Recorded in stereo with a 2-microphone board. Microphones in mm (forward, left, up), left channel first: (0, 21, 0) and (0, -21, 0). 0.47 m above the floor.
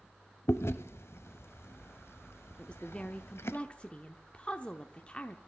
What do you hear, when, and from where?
0.5 s chewing: 75° left (ahead or behind), 0.6 m
2.6 s a woman speaking: 25° left (ahead or behind), 0.7 m